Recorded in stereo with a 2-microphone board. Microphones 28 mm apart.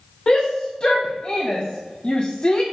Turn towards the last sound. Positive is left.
turn(degrees=35)  # may be behind; listen again after turning